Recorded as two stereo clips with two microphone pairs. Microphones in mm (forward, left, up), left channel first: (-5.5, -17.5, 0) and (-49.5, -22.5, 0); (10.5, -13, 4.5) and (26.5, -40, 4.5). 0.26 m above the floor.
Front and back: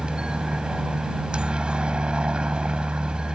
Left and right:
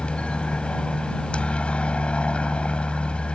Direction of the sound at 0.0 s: 135° left.